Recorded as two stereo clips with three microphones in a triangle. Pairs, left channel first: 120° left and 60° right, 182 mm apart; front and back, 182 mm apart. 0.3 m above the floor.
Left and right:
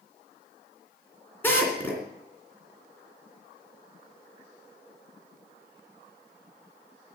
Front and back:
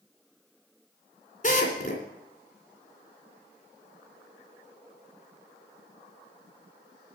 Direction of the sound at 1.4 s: 40° left.